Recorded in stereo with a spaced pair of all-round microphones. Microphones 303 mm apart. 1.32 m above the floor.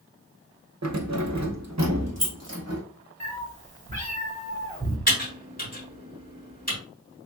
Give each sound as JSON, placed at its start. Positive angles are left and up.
{"t": 0.8, "sound": "keys jangling", "side_deg": -60, "distance_m": 0.6}
{"t": 3.2, "sound": "a cat meowing", "side_deg": -25, "distance_m": 1.0}
{"t": 5.1, "sound": "typing on a keyboard", "side_deg": 30, "distance_m": 2.0}